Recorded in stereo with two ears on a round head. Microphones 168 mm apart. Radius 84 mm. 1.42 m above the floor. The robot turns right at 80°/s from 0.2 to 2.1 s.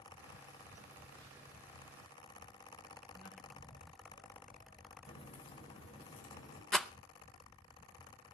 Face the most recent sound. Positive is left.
turn(degrees=0)  # may be behind; listen again after turning